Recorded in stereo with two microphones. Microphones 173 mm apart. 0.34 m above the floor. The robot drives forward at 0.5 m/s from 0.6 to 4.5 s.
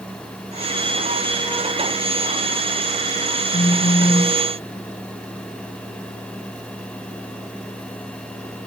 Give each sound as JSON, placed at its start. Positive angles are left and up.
{"t": 3.5, "sound": "a phone buzzing", "side_deg": 80, "distance_m": 3.0}